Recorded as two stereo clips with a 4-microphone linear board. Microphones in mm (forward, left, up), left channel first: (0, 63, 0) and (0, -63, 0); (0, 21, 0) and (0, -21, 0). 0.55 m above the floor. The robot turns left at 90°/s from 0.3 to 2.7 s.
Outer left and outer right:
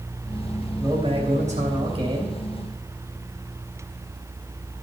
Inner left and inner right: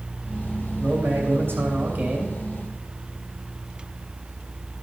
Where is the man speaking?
25° right, 3 m; by 2.4 s 170° right, 3 m.